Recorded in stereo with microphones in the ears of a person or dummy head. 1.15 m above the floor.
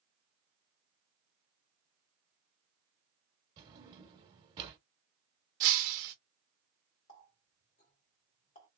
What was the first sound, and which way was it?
A drawer, 25° right (ahead or behind).